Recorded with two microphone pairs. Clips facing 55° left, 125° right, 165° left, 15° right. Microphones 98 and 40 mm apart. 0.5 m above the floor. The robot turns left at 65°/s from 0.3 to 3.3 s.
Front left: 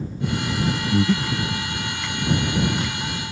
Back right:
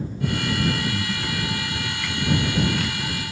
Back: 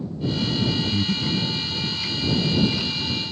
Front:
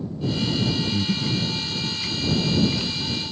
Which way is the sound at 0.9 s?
85° left.